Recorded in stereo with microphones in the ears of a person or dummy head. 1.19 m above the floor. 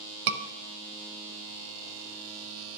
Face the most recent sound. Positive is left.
turn(degrees=-60)  # may be behind; listen again after turning